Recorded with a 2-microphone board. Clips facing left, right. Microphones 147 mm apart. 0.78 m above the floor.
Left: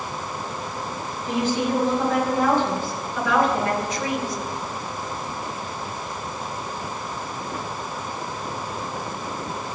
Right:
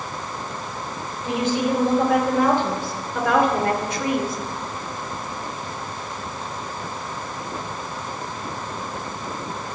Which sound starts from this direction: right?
A woman speaking, at 1.2 s.